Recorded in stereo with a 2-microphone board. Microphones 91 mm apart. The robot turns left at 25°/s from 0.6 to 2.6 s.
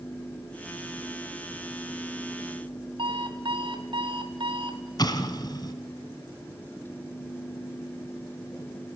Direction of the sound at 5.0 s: 50° left (ahead or behind).